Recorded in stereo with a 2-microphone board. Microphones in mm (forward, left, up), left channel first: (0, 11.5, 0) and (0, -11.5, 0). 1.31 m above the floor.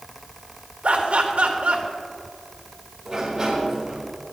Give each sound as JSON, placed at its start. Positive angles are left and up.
{"t": 0.8, "sound": "laughter", "side_deg": -70, "distance_m": 2.0}
{"t": 3.0, "sound": "a sliding door", "side_deg": -20, "distance_m": 3.5}